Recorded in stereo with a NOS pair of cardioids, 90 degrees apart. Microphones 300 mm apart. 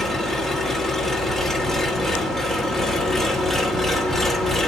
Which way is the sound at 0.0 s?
Straight ahead.